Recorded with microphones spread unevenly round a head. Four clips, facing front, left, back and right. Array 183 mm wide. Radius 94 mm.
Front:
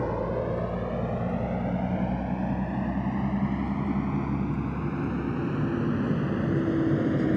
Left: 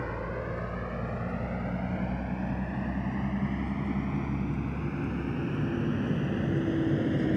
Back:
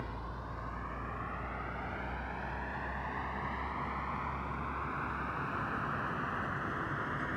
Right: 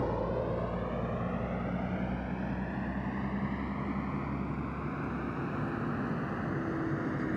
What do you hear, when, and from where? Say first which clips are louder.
0.0 s a vehicle: right 3 dB, front 15 dB; 20° right; by 7.4 s 20° left